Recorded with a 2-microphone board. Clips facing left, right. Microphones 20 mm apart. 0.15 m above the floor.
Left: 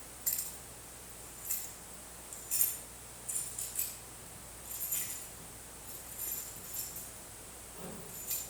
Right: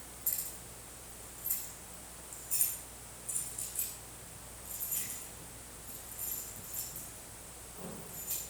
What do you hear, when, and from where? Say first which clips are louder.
0.3 s keys jangling: left 2 dB; 30° left (ahead or behind), 4.5 m; by 8.4 s 5° left (ahead or behind), 11.5 m